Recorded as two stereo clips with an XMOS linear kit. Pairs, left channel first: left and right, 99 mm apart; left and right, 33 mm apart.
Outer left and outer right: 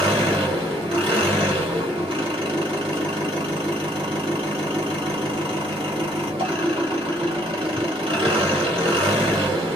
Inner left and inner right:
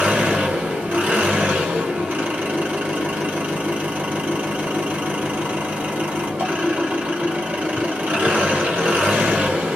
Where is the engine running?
80° right, 1.8 m.